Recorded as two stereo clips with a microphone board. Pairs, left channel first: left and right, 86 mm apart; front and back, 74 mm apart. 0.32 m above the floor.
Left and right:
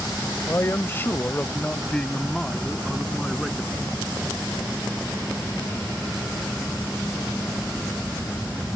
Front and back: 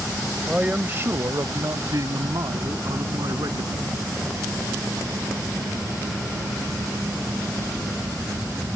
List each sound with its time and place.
0.5 s a man speaking: 110° left; by 3.7 s straight behind